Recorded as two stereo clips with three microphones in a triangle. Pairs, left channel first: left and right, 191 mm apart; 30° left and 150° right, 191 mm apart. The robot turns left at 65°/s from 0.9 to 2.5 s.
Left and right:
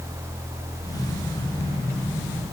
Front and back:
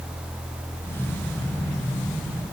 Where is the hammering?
No hammering in this recording.